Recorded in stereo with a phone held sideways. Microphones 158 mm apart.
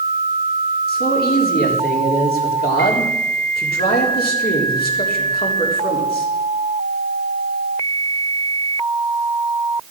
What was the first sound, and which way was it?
A man speaking, 75° left (ahead or behind).